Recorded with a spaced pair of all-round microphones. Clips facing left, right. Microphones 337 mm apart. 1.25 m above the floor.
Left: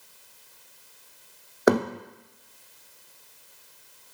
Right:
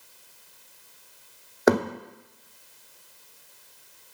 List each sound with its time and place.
1.7 s a thud: centre (ahead or behind), 2 m